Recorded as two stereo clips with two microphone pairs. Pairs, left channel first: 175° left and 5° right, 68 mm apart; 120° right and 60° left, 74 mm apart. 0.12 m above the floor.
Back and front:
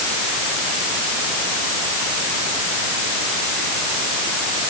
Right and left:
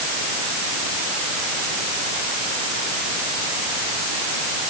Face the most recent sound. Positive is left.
No sound to turn to.